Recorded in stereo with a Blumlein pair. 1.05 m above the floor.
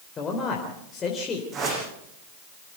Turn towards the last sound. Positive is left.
turn(degrees=-25)